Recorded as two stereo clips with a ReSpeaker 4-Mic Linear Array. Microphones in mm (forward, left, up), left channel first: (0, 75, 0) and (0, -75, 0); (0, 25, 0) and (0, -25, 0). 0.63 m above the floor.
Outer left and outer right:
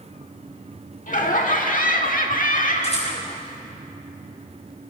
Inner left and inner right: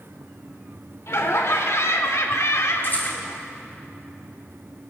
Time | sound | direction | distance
1.1 | laughter | 60° left (ahead or behind) | 1.6 m
2.8 | a rattle | 45° left (ahead or behind) | 3.5 m